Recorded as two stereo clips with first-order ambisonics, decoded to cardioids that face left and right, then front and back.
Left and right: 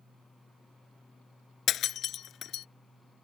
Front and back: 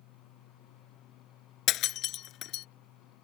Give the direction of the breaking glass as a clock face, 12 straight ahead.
11 o'clock.